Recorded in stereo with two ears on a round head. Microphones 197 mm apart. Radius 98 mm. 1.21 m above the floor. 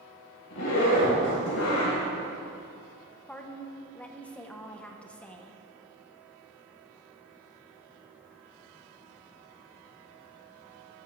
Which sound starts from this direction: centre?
A woman speaking, at 3.3 s.